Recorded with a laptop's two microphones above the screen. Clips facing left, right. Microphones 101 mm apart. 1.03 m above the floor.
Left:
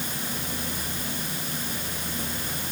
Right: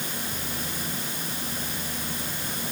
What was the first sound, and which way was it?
Only background noise.